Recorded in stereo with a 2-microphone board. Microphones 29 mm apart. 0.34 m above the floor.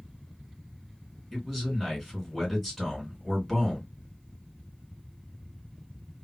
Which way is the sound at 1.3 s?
5° left (ahead or behind).